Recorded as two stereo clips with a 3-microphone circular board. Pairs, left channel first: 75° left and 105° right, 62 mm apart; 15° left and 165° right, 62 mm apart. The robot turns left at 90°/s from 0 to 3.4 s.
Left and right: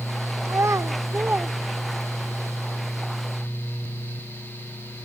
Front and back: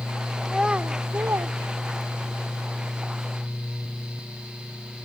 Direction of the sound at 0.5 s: 70° right.